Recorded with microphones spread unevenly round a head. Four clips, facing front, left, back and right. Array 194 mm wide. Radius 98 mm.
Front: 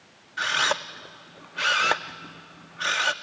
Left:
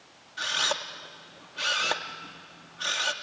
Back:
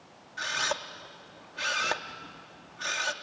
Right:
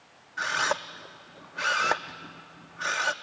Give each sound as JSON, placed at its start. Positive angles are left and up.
{"t": 0.4, "sound": "a camera shutter", "azimuth_deg": -20, "distance_m": 0.6}